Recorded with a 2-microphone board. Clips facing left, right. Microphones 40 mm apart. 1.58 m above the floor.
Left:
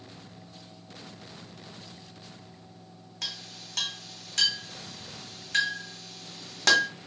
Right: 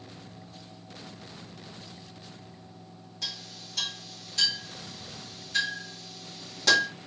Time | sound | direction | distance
3.2 | a clink | 70° left (ahead or behind) | 1.7 m